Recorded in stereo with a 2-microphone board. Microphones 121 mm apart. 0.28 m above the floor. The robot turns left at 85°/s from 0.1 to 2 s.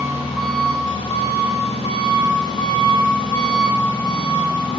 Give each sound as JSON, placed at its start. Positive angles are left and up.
{"t": 0.0, "sound": "an engine running", "azimuth_deg": -155, "distance_m": 1.3}